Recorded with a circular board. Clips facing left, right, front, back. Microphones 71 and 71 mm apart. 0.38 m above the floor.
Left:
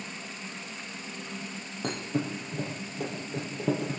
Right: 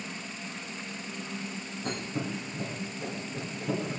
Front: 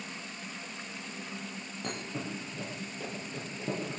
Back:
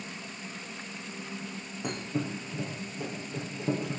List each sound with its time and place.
1.8 s a thud: 100° left, 5.5 m